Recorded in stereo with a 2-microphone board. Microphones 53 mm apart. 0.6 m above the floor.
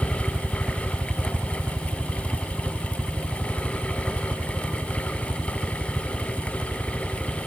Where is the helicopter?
10° right (ahead or behind); by 7.5 s 30° right (ahead or behind).